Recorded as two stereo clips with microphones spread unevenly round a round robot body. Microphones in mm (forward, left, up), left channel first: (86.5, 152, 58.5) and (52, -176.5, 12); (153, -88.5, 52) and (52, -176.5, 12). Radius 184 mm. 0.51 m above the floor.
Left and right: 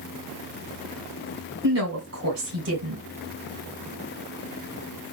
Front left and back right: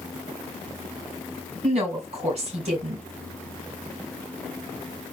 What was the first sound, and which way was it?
A woman speaking, 145° right.